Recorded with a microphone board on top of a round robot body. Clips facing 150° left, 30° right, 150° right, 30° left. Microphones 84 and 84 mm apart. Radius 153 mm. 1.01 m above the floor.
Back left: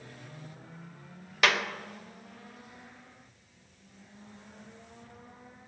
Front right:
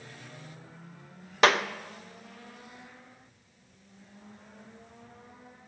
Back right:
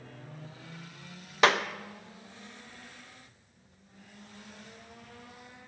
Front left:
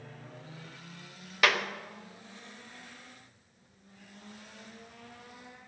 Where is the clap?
90° right, 0.7 m.